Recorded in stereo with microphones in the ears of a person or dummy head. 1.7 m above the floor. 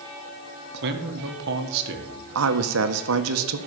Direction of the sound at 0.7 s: 65° right (ahead or behind).